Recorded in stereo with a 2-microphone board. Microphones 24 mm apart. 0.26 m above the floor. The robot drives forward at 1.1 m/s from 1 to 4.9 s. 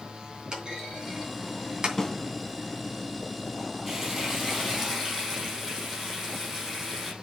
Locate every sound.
0.5 s a clunk: 30° right (ahead or behind), 3 m; by 1.9 s 35° right (ahead or behind), 2.5 m
2.0 s a snare drum: 15° left (ahead or behind), 1.2 m; by 2.1 s 20° left (ahead or behind), 1.1 m
3.9 s frying: 15° right (ahead or behind), 3 m; by 7.1 s 10° right (ahead or behind), 4.5 m